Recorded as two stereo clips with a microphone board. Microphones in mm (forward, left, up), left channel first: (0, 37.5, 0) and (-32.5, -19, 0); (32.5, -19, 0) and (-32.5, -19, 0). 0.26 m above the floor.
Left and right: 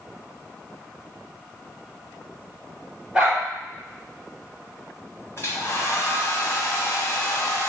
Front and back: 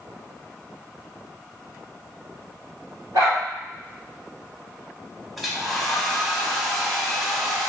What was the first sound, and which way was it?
A dog barking, 165° left.